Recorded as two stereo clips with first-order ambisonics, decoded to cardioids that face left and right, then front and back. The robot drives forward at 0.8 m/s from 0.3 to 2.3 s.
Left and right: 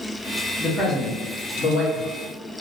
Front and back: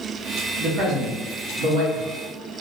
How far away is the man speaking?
About 0.9 m.